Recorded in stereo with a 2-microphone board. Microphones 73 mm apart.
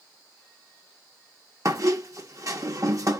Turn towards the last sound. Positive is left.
turn(degrees=-50)  # may be behind; listen again after turning